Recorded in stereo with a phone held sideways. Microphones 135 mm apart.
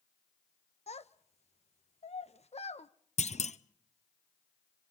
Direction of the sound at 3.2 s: 55° left (ahead or behind).